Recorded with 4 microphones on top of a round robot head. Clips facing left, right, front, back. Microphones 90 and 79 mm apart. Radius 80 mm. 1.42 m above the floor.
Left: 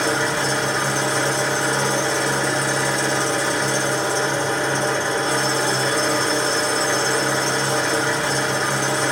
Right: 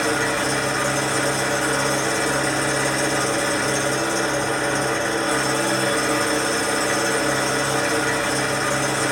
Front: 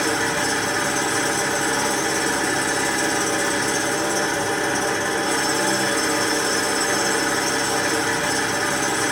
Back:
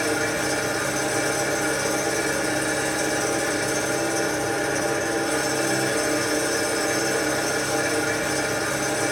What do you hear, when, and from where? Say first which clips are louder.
0.0 s an engine running: left 1 dB, front 2 dB; 20° left, 1.7 m